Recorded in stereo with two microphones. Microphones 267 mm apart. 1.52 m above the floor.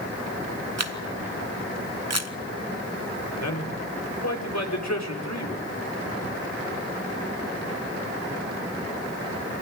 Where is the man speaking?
80° left, 4.5 m.